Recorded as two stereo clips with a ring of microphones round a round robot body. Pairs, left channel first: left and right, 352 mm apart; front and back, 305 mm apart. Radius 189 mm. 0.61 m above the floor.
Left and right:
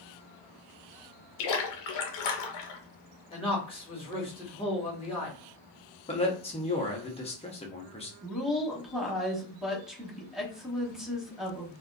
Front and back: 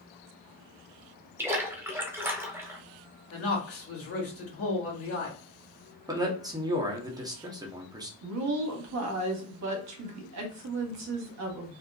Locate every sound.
1.4 s a splash: 100° left, 0.6 m
3.3 s a man speaking: 20° left, 1.5 m
6.1 s a man speaking: 125° left, 0.7 m
8.2 s a woman speaking: straight behind, 0.9 m